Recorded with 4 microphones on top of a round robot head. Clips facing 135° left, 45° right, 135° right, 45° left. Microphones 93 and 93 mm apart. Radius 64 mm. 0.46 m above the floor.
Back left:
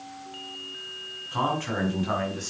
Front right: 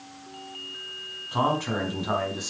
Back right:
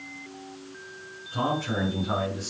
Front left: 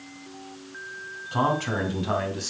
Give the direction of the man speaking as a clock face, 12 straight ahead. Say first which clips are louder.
Front right 2 dB, front left 3 dB; 11 o'clock.